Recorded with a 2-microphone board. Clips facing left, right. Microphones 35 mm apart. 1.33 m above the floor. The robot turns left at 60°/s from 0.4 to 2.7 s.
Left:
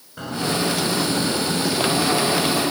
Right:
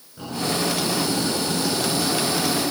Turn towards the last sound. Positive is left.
turn(degrees=-40)